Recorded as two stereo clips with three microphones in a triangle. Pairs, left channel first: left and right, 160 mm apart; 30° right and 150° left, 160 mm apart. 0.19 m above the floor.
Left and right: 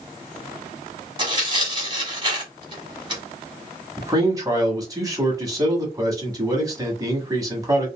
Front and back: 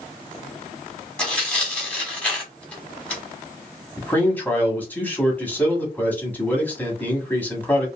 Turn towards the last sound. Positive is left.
turn(degrees=-90)